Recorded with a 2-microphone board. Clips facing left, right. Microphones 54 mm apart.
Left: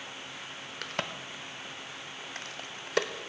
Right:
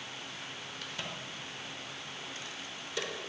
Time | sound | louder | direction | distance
0.8 | a crack | left 7 dB | 60° left (ahead or behind) | 0.5 m